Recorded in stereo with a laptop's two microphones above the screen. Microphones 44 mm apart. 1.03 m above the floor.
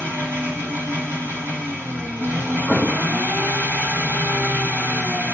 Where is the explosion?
15° right (ahead or behind), 0.9 m.